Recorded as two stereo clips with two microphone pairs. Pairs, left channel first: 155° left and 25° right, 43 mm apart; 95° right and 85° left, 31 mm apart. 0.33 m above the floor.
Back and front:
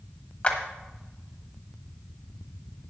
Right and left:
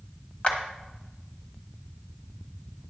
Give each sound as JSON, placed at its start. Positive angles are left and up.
{"t": 0.4, "sound": "a clap", "azimuth_deg": -145, "distance_m": 1.4}